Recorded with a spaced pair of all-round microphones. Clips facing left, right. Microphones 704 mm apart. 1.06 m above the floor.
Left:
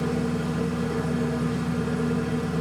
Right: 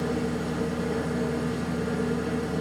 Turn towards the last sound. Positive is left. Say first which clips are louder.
# left 2 dB
turn(degrees=40)  # may be behind; listen again after turning